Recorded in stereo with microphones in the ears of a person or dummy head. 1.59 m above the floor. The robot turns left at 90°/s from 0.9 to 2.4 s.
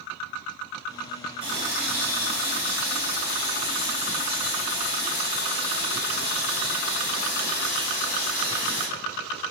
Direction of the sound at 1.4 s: 140° right.